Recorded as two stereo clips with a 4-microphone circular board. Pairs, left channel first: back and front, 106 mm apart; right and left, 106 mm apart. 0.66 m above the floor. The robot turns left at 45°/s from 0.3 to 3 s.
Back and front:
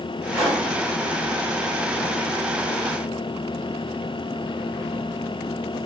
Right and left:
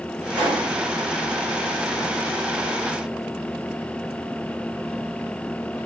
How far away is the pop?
About 2 m.